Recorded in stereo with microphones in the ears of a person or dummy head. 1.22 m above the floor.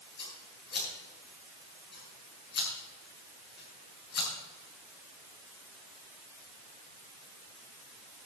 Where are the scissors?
55° left (ahead or behind), 7 m.